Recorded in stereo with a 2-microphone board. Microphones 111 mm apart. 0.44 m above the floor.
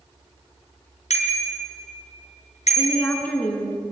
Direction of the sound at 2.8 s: 15° left (ahead or behind).